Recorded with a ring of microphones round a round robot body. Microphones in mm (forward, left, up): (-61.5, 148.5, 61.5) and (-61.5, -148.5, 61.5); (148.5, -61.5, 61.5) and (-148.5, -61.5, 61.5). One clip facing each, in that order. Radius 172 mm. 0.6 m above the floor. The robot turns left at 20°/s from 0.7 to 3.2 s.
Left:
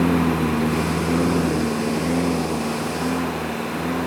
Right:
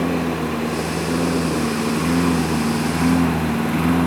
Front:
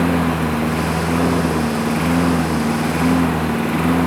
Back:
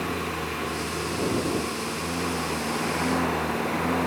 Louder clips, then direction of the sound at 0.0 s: Left 2 dB, front 13 dB; 15° left.